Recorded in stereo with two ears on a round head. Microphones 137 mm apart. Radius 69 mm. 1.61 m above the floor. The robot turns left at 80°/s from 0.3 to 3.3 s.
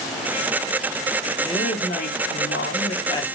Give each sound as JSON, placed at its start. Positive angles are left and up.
{"t": 1.4, "sound": "a woman speaking", "azimuth_deg": 170, "distance_m": 0.8}